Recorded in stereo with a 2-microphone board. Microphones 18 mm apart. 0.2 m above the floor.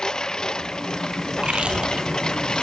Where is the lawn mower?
45° left (ahead or behind).